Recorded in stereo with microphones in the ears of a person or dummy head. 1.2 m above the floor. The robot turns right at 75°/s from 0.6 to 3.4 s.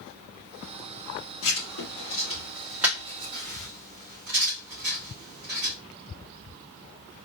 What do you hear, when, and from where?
1.4 s writing: 80° left, 1.6 m; by 5.8 s 45° right (ahead or behind), 1.6 m